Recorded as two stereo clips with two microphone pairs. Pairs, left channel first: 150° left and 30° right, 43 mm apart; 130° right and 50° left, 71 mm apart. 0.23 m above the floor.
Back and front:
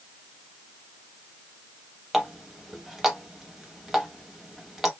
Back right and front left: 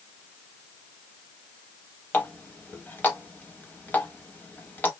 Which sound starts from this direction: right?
A running tap, at 2.1 s.